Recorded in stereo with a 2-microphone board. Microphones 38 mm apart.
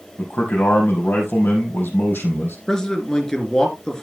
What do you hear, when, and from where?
0.2 s a man speaking: 60° left (ahead or behind), 4 m
2.7 s a man speaking: 15° left (ahead or behind), 2.5 m